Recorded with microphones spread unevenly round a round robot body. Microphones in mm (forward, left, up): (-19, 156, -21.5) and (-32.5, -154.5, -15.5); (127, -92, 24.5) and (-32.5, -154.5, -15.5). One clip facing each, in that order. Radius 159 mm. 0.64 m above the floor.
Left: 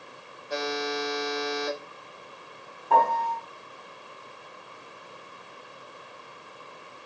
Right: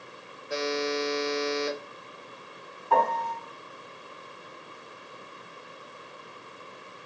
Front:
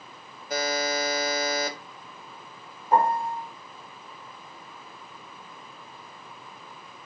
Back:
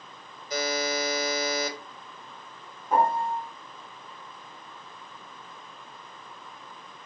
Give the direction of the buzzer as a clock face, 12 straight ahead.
1 o'clock.